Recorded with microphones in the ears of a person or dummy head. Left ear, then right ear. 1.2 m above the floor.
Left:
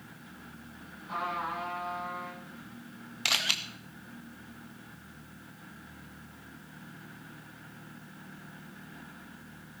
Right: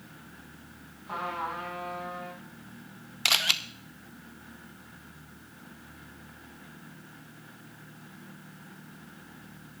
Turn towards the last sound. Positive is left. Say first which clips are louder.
# right 3 dB
turn(degrees=-15)  # may be behind; listen again after turning